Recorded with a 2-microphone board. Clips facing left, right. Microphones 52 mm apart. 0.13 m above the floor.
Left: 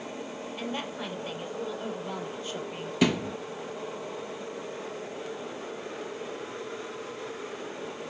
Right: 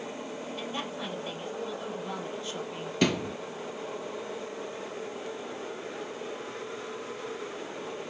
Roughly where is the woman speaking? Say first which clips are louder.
Left 3 dB; centre.